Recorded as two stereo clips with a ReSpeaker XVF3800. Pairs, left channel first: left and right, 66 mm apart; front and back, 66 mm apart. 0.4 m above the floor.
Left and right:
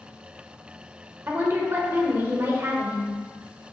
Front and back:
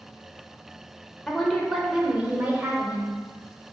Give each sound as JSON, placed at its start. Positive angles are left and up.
{"t": 1.3, "sound": "a woman speaking", "azimuth_deg": -75, "distance_m": 1.4}